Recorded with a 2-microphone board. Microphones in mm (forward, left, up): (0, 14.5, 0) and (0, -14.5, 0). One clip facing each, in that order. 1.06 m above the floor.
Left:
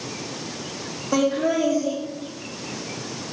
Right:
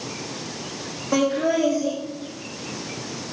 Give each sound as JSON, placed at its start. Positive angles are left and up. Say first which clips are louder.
{"t": 1.1, "sound": "laughter", "louder": "even", "side_deg": -40, "distance_m": 2.0}